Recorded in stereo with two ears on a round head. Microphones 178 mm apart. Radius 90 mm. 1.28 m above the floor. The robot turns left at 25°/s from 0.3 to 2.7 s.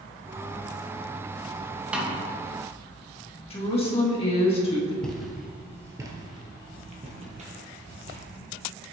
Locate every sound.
1.9 s a snare drum: 5° right (ahead or behind), 1.1 m; by 2.2 s centre (ahead or behind), 1.1 m
3.5 s a woman speaking: 30° left (ahead or behind), 1.6 m
5.0 s footsteps: 5° left (ahead or behind), 1.3 m; by 8.2 s 40° right (ahead or behind), 2 m